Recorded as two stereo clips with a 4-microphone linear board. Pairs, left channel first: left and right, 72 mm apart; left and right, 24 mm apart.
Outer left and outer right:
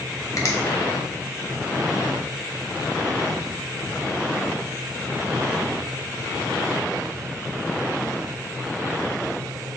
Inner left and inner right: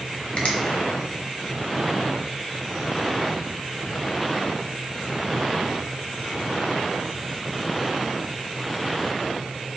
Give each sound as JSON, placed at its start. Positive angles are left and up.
{"t": 0.4, "sound": "a finger snap", "side_deg": 50, "distance_m": 0.7}